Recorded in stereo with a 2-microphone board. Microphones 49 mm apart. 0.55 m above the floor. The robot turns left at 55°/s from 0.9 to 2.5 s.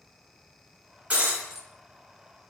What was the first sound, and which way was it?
Breaking glass, 30° right (ahead or behind).